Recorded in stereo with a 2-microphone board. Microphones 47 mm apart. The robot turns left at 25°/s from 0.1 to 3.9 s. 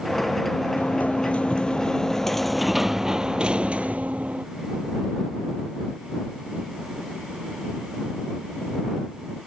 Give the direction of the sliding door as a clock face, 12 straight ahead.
10 o'clock.